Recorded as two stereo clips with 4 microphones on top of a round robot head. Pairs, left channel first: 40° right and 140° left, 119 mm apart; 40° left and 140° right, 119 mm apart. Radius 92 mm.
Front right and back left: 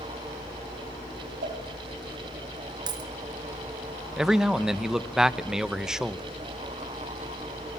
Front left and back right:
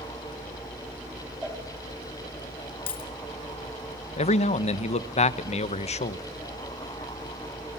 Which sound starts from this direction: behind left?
A cowbell, at 1.4 s.